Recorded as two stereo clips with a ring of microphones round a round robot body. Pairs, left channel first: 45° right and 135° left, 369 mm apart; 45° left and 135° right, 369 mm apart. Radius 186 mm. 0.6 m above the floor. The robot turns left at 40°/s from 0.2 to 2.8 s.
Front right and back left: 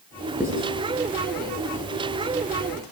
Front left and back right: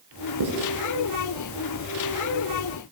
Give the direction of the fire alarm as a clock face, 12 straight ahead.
No fire alarm in this recording.